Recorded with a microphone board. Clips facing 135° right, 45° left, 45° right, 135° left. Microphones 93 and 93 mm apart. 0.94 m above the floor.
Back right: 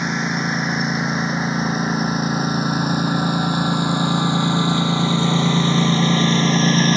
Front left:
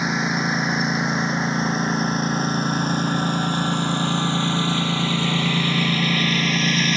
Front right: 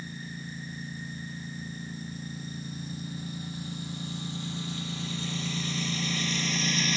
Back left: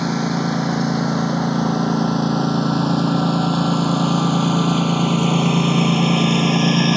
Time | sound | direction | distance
0.0 | a lawn mower | 135° left | ?